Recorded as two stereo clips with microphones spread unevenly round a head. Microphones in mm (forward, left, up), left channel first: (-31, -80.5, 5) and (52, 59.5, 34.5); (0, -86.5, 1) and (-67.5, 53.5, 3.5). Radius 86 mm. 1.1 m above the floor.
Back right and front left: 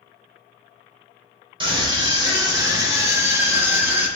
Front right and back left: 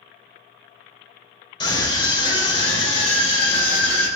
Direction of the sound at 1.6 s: Straight ahead.